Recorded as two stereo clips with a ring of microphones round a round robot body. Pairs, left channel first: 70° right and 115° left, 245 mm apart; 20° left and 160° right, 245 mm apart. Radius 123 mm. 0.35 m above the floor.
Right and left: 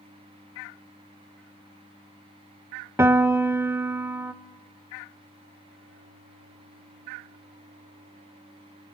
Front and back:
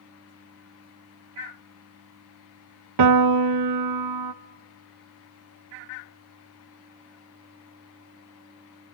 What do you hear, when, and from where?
3.0 s a piano: 165° right, 0.6 m